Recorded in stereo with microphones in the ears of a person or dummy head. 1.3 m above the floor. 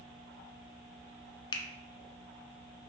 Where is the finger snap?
25° left (ahead or behind), 0.5 m.